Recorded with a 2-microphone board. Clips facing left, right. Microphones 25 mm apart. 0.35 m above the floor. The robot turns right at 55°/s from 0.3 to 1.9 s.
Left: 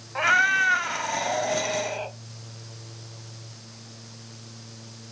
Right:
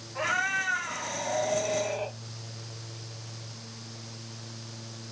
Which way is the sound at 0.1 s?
55° left.